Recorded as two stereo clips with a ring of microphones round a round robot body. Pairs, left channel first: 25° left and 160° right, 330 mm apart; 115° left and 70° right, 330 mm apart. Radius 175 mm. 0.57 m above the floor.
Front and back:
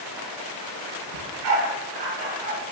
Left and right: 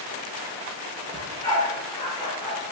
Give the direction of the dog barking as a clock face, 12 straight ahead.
6 o'clock.